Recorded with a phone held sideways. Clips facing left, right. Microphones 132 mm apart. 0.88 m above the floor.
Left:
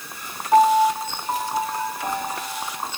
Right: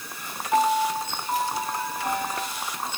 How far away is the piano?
About 4.5 m.